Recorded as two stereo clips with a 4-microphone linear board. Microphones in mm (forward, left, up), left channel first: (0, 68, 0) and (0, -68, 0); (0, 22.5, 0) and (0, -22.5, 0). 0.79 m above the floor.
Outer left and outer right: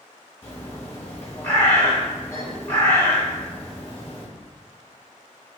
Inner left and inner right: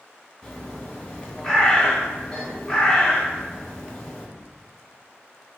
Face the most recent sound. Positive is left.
turn(degrees=20)  # may be behind; listen again after turning